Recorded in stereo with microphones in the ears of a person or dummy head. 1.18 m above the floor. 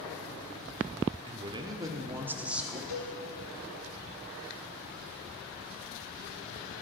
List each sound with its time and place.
1.3 s a man speaking: 20° right (ahead or behind), 0.6 m; by 2.8 s centre (ahead or behind), 1.2 m
2.9 s a cowbell: 45° left (ahead or behind), 3 m